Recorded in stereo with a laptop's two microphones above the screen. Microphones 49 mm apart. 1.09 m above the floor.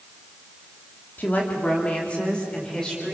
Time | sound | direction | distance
1.2 | a woman speaking | 35° left (ahead or behind) | 3 m